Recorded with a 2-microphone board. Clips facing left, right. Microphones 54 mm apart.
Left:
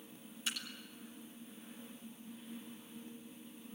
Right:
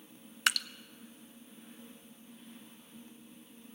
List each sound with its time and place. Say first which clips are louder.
0.5 s dripping: right 12 dB; 70° right (ahead or behind), 0.5 m